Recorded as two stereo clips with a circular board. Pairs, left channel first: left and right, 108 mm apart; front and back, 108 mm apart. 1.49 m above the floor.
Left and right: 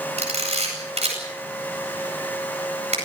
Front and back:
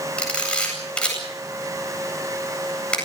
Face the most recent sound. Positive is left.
turn(degrees=-80)